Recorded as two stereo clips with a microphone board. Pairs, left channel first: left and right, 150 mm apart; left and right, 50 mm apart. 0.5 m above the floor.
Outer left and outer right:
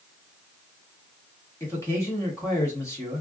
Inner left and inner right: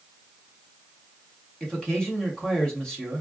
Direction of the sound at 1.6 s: 20° left (ahead or behind).